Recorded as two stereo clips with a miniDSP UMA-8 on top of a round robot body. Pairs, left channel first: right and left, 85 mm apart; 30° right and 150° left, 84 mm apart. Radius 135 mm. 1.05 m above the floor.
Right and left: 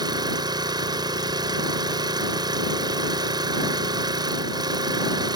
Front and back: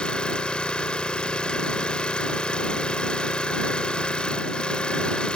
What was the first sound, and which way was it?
An engine running, 50° left.